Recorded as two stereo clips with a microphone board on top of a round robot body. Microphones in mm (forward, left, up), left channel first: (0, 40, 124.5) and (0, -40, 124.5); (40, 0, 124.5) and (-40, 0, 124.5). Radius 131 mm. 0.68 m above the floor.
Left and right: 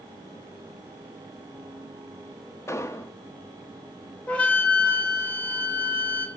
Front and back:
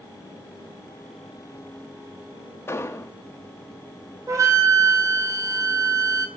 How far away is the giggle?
No giggle in this recording.